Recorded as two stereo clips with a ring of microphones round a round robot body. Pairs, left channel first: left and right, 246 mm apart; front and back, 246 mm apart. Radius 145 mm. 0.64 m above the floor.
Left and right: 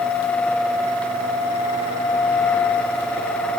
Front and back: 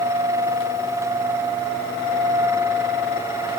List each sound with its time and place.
Only background noise.